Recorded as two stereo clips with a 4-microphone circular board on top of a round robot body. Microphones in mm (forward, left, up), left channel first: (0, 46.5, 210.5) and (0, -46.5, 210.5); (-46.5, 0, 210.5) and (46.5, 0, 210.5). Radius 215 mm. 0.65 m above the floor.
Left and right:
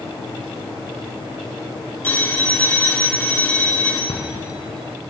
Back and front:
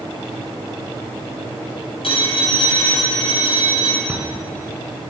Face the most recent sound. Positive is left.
turn(degrees=75)